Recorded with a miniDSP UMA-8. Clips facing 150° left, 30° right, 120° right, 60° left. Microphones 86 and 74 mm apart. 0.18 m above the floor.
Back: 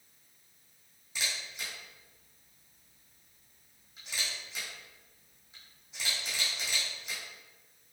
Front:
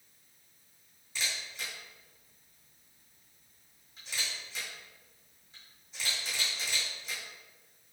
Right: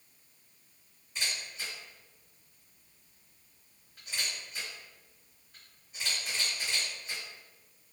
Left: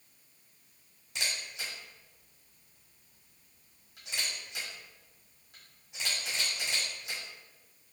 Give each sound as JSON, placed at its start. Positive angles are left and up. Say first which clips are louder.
{"t": 1.1, "sound": "a camera shutter", "louder": "even, even", "azimuth_deg": 70, "distance_m": 1.7}